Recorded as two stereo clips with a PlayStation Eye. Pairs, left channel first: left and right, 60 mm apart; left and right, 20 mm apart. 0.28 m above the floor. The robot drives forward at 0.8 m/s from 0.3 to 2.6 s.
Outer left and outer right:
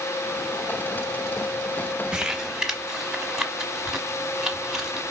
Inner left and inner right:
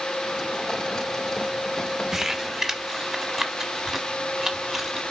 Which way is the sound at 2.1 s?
15° right (ahead or behind).